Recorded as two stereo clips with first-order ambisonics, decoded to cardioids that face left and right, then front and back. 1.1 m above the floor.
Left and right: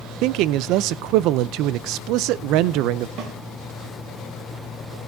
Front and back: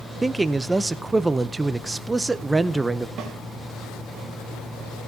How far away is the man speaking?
About 0.5 m.